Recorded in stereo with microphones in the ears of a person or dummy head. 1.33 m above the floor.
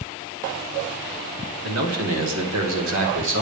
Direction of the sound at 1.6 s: 85° right.